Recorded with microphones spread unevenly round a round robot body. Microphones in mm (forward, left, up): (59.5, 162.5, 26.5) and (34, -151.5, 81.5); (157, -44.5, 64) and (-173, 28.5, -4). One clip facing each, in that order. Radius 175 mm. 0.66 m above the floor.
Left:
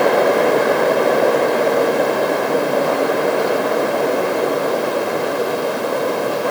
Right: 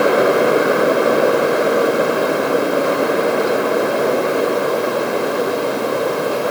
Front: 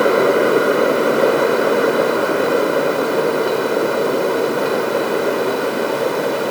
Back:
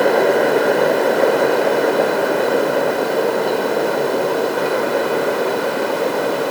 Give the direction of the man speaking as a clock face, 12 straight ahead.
I don't hear a man speaking.